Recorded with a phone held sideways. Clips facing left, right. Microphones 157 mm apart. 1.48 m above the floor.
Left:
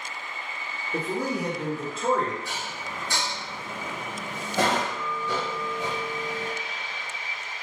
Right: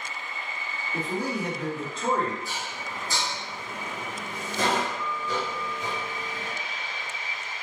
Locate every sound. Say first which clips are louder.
0.9 s a man speaking: left 2 dB; 65° left (ahead or behind), 0.9 m; by 2.4 s 10° right (ahead or behind), 1.1 m
2.5 s dishes clattering: even; 65° left (ahead or behind), 1.1 m